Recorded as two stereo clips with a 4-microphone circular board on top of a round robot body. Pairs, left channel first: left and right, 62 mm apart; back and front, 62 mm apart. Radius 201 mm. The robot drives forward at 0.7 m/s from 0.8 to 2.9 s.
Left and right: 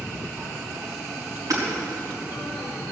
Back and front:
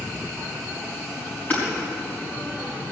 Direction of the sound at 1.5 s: 115° right.